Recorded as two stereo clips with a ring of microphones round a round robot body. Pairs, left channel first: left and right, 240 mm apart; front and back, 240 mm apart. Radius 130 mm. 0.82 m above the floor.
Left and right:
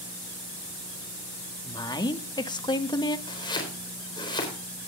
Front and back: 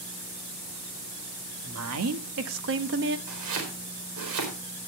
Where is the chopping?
160° left, 4 m.